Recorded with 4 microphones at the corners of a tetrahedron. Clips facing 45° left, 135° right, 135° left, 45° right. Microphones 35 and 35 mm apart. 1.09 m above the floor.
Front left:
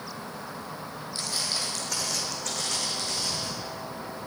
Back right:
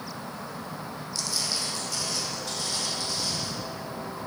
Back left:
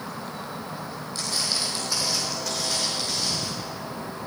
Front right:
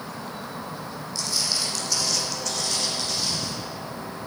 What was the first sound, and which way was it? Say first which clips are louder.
Footsteps: even, even; 100° left.